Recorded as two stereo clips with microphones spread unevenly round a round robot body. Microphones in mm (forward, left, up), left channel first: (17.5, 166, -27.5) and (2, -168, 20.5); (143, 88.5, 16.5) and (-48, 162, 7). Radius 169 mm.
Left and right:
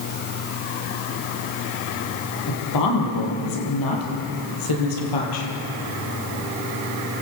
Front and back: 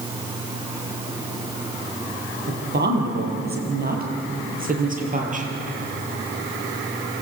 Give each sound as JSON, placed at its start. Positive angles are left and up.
{"t": 2.5, "sound": "a woman speaking", "azimuth_deg": 125, "distance_m": 7.0}